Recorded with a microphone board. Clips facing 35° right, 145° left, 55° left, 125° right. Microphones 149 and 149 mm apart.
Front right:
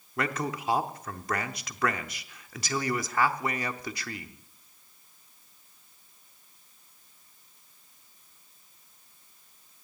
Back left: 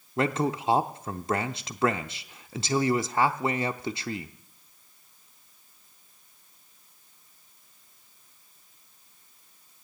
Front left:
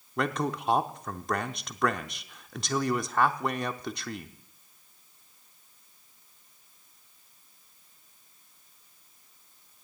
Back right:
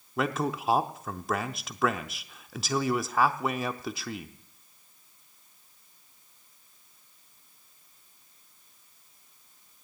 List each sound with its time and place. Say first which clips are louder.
0.2 s a man speaking: back left 5 dB, back right 1 dB; 155° left, 0.7 m